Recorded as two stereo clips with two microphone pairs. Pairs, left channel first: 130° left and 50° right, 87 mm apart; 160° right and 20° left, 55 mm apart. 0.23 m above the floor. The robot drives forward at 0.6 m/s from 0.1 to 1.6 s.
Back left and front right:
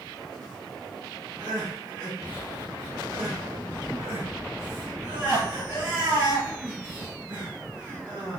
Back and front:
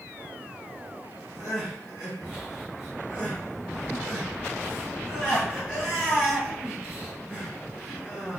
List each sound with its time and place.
1.4 s crying: 55° right, 1.9 m; by 8.4 s 60° right, 1.9 m